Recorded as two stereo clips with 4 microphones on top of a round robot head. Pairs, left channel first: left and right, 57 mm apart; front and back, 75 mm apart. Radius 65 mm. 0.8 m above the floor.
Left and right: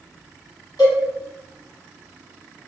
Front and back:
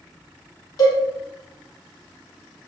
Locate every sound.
0.8 s a cowbell: 40° left, 1.2 m